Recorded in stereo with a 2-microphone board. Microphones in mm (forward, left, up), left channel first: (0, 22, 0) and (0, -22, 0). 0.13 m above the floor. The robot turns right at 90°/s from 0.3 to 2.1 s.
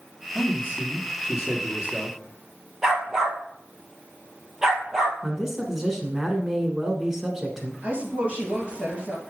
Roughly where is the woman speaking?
Right.